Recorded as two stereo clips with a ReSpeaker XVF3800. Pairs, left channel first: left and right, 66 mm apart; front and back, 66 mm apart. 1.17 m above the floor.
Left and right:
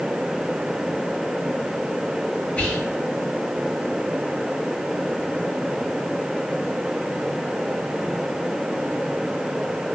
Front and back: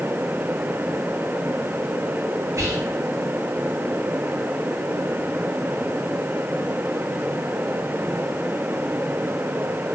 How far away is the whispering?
About 0.8 m.